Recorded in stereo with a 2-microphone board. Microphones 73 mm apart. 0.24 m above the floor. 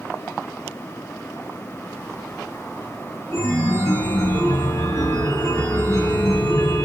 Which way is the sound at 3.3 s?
60° left (ahead or behind).